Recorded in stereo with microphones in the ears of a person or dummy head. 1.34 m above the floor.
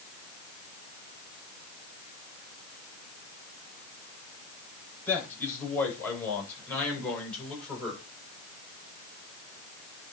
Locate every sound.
5.1 s a man speaking: 5° left (ahead or behind), 8 m; by 8.0 s centre (ahead or behind), 6.5 m